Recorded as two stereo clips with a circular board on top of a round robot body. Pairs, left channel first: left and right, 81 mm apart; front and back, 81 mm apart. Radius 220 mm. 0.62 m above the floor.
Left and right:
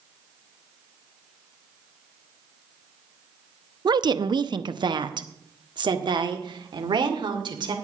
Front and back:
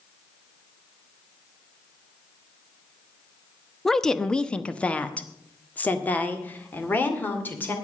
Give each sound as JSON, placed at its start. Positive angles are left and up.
{"t": 3.9, "sound": "a woman speaking", "azimuth_deg": -85, "distance_m": 0.9}